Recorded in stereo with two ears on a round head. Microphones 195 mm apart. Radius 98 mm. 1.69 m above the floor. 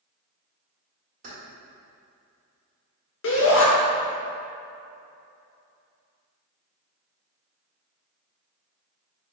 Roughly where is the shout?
Left.